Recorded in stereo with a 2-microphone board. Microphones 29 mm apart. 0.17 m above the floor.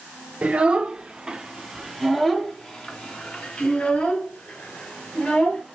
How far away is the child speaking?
About 1.5 m.